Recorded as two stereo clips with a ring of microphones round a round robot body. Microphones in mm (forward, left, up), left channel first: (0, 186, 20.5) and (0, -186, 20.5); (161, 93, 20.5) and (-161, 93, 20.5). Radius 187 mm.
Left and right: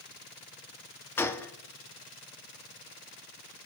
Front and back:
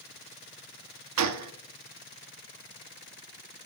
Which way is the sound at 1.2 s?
170° left.